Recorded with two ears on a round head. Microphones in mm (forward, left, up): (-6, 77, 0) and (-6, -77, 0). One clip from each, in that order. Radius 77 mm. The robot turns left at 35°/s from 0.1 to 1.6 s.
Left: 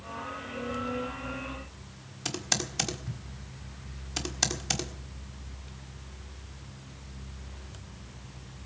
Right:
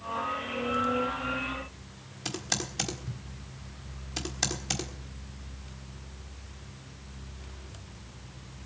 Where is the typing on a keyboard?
15° left (ahead or behind), 1.5 m.